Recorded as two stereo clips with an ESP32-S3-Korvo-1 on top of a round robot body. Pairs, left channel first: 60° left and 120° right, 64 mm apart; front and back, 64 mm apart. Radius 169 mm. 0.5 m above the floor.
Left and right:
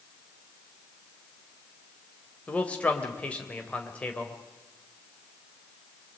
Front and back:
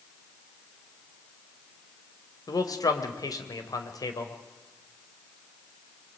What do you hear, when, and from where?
2.5 s a man speaking: 10° right, 3 m